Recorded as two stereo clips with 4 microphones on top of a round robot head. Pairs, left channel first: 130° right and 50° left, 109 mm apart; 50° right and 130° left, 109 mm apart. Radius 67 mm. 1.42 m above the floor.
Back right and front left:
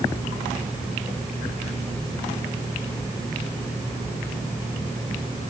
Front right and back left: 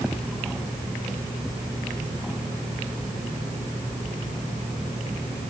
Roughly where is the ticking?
No ticking in this recording.